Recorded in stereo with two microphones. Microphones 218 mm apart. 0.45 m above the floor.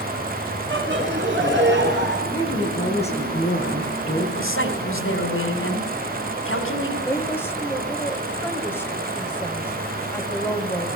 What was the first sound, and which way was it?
Laughter, 60° right (ahead or behind).